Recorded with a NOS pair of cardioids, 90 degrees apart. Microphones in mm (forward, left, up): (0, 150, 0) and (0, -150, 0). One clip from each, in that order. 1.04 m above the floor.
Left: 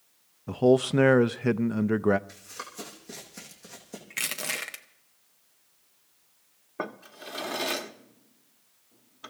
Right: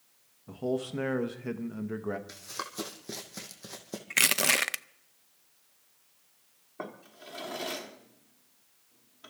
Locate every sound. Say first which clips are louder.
0.5 s a man speaking: left 11 dB; 50° left, 0.6 m
2.3 s running footsteps: right 2 dB; 40° right, 3.5 m
4.1 s crushing: right 7 dB; 35° right, 0.5 m
6.8 s a drawer: left 6 dB; 40° left, 1.1 m